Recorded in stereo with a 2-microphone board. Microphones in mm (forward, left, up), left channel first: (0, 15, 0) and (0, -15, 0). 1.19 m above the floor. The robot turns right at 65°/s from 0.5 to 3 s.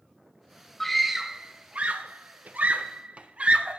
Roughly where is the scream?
Centre.